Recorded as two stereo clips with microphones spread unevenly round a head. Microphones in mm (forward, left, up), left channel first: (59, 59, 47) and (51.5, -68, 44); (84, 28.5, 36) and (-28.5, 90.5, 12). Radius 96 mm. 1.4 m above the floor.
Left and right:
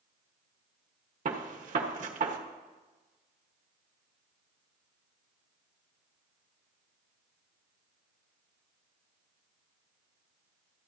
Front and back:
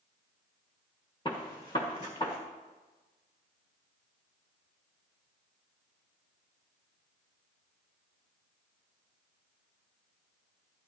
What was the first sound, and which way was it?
A gunshot, 95° right.